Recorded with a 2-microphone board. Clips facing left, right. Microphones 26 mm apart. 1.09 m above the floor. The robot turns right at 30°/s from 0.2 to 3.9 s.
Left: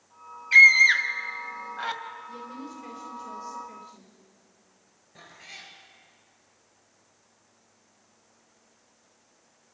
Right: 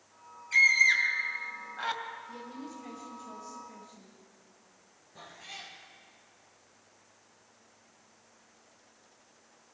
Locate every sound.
0.5 s a scream: 45° left (ahead or behind), 2 m; by 2.0 s centre (ahead or behind), 2 m
2.3 s a woman speaking: 15° left, 4.5 m; by 4.2 s 65° left, 4.5 m
5.2 s a cat meowing: 25° left (ahead or behind), 4.5 m